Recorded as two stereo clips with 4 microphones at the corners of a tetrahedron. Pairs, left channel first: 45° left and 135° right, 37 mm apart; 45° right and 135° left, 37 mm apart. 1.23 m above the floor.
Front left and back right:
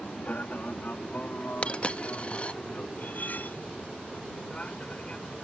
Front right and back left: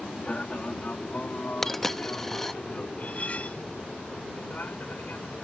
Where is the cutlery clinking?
5° left.